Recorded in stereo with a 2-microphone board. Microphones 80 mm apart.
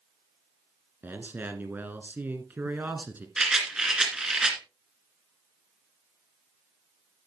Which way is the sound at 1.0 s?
25° right (ahead or behind).